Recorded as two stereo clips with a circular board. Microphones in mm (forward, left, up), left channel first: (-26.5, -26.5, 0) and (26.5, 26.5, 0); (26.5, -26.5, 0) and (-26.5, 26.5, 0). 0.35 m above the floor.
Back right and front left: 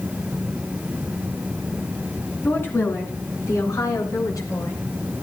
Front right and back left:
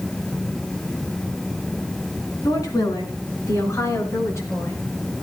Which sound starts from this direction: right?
A woman speaking, at 2.4 s.